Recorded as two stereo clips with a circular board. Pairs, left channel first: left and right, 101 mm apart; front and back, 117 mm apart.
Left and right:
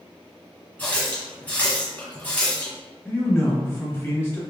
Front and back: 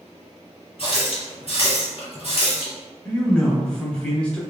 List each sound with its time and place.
0.8 s a running tap: 15° left, 1.5 m
3.0 s a man speaking: 65° left, 1.0 m